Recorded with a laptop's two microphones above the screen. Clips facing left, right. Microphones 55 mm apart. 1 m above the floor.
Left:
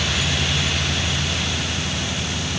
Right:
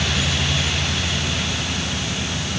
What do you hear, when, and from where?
Only background noise.